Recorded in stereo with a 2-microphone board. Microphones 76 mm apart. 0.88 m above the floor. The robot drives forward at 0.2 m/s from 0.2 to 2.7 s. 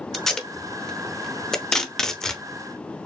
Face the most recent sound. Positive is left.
turn(degrees=5)  # may be behind; listen again after turning